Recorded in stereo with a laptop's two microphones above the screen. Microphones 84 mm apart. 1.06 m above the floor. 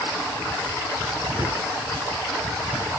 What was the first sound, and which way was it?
A cupboard door, 60° right (ahead or behind).